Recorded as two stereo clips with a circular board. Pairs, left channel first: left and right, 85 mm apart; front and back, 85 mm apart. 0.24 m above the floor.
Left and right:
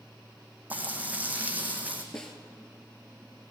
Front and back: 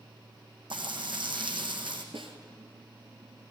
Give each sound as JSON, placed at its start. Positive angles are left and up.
{"t": 0.7, "sound": "frying", "azimuth_deg": -160, "distance_m": 2.0}
{"t": 2.1, "sound": "a snare drum", "azimuth_deg": 175, "distance_m": 2.0}